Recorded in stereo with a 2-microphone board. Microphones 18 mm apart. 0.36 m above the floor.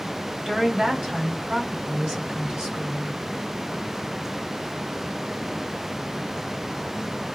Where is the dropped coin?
I don't hear a dropped coin.